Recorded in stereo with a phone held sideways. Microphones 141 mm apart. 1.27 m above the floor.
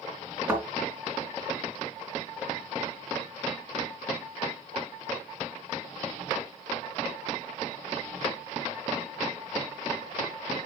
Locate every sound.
0.5 s a thud: 10° right (ahead or behind), 3.5 m